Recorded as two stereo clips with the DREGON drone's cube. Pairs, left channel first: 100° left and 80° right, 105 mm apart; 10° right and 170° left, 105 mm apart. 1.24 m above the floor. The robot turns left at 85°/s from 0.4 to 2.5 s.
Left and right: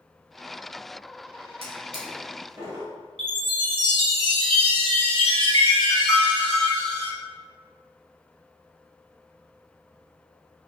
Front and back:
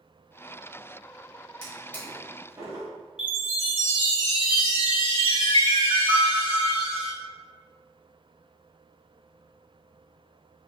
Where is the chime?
45° right, 1.8 m.